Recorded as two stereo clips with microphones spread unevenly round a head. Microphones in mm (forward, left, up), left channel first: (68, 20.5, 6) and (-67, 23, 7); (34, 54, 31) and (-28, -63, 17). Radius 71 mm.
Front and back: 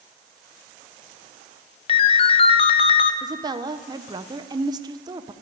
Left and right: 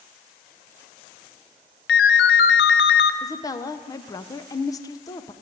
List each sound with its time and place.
1.9 s a ringtone: 50° left, 0.5 m
3.2 s a woman speaking: 125° left, 0.6 m